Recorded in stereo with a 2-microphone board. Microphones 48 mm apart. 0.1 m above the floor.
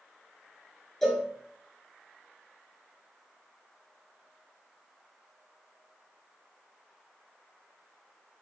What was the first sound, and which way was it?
A cowbell, 10° left (ahead or behind).